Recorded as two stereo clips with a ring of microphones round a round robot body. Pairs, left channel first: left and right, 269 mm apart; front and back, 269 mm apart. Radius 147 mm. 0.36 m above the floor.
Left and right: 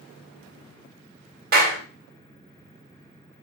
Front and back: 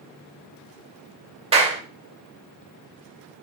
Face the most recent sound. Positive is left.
turn(degrees=-120)